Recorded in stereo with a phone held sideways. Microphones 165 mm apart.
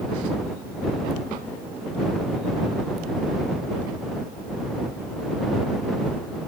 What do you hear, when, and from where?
Only background noise.